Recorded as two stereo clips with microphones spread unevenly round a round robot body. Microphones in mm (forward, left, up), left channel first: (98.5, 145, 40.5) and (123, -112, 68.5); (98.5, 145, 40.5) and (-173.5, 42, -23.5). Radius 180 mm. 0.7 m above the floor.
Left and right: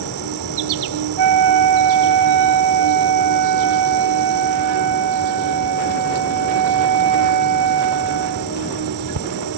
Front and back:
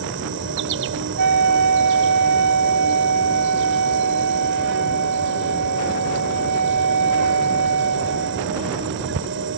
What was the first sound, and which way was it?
An insect, 100° right.